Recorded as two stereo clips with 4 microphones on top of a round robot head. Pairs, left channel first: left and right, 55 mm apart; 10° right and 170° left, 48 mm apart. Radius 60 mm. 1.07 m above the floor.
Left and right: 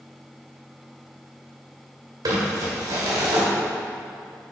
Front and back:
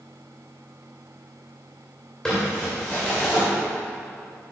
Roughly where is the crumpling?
Right.